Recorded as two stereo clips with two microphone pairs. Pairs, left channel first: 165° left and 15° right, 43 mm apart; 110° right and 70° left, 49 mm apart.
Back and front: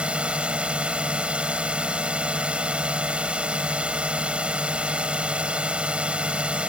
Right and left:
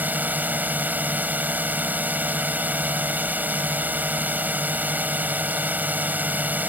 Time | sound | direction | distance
0.0 | a drone | 35° left | ?